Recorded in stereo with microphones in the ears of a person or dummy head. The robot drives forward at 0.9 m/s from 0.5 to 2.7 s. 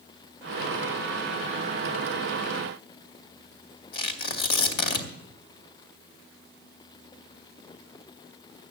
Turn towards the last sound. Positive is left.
turn(degrees=60)  # may be behind; listen again after turning